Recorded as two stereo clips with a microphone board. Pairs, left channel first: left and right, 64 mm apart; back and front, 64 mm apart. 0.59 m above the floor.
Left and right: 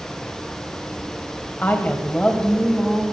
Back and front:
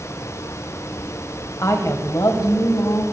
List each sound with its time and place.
1.6 s a woman speaking: 150° left, 2.5 m; by 3.0 s straight behind, 3 m